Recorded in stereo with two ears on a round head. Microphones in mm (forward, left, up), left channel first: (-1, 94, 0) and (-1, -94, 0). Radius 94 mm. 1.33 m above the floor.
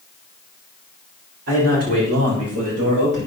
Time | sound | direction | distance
1.5 | a man speaking | 45° right (ahead or behind) | 5.5 m